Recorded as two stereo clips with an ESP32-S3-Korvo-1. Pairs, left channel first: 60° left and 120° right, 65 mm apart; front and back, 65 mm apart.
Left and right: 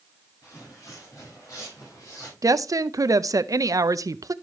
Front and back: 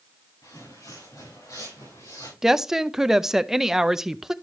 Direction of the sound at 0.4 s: 20° left.